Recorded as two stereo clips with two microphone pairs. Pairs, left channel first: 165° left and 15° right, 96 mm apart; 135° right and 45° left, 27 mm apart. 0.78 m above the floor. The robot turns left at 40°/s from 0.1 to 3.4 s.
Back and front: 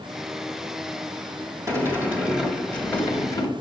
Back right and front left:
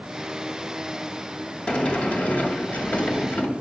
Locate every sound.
1.7 s a sliding door: 75° right, 2 m; by 3.5 s 140° right, 2 m